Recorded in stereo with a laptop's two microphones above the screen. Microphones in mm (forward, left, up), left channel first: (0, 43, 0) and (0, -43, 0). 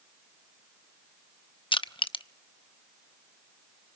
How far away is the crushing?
About 0.7 m.